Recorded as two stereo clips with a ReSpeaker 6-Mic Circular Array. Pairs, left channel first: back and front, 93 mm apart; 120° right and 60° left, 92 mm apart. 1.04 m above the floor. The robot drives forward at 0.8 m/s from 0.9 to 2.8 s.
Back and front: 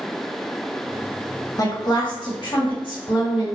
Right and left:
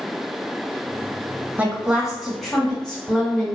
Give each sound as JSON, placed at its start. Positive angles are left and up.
{"t": 1.6, "sound": "a woman speaking", "azimuth_deg": 130, "distance_m": 0.8}